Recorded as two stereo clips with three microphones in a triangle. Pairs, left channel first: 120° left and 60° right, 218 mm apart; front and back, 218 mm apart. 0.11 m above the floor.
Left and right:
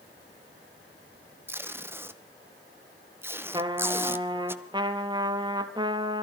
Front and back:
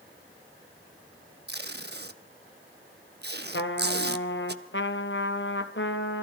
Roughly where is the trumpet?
Ahead.